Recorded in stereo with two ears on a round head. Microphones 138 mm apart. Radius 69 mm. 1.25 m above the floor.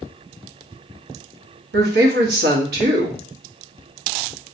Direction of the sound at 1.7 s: 75° right (ahead or behind).